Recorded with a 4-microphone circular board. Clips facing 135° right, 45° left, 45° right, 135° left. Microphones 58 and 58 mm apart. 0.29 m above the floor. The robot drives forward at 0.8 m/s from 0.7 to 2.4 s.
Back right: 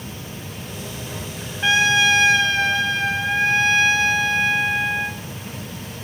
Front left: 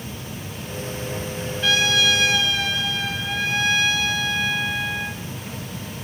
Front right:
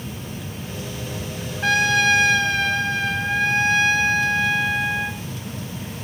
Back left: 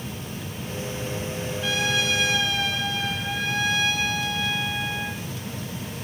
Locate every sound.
1.6 s a trumpet: 70° right, 3 m; by 5.2 s 85° right, 2.5 m